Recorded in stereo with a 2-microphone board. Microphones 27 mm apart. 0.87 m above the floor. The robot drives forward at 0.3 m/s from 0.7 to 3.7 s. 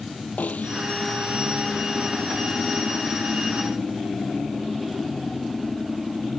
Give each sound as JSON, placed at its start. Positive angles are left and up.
{"t": 0.4, "sound": "a snare drum", "side_deg": 85}